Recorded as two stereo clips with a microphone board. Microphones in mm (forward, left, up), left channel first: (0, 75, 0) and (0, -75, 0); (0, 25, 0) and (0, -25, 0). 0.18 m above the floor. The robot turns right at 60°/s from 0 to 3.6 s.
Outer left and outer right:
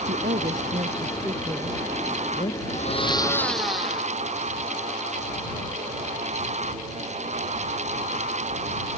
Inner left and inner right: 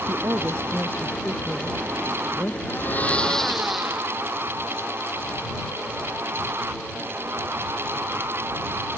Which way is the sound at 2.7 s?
125° left.